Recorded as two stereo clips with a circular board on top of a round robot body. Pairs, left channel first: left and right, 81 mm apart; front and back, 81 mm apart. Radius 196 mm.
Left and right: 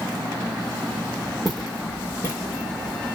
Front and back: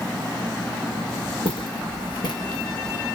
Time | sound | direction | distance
1.4 | footsteps | straight ahead | 1.4 m